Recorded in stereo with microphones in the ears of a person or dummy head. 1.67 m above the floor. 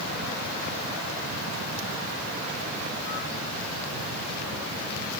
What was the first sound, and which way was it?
Only background noise.